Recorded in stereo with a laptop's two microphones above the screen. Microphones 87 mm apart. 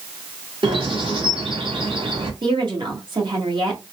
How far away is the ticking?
No ticking in this recording.